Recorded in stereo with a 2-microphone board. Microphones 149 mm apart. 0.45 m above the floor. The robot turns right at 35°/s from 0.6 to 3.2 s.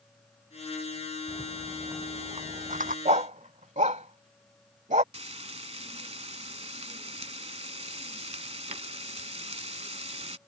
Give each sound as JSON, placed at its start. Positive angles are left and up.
{"t": 1.3, "sound": "a rattle", "side_deg": -10}
{"t": 3.0, "sound": "a dog barking", "side_deg": -60}
{"t": 5.1, "sound": "frying", "side_deg": -45}